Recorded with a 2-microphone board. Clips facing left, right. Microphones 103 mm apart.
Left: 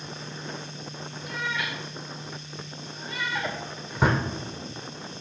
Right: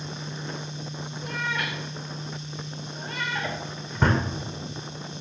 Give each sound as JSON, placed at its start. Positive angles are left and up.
{"t": 1.2, "sound": "a cat meowing", "side_deg": -50, "distance_m": 2.5}
{"t": 3.4, "sound": "a drawer", "side_deg": 5, "distance_m": 1.8}